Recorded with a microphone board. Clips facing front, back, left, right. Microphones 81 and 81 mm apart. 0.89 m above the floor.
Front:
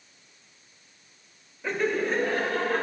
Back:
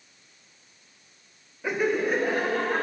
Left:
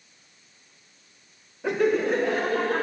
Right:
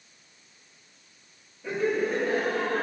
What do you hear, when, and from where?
1.6 s laughter: 100° left, 0.8 m